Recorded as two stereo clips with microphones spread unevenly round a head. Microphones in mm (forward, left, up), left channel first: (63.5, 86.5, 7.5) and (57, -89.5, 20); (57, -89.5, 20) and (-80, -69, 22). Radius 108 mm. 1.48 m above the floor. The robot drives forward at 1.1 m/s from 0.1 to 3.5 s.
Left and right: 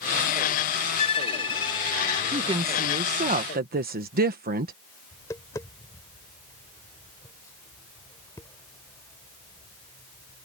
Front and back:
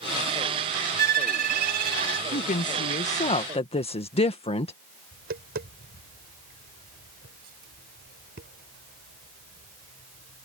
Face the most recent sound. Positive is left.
turn(degrees=165)